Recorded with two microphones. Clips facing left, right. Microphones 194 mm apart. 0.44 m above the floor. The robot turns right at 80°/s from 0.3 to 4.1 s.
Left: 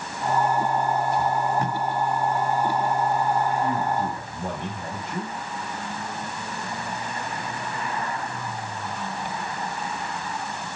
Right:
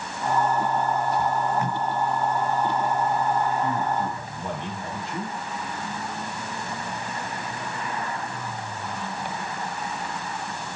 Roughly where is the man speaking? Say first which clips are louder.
Left 1 dB; ahead.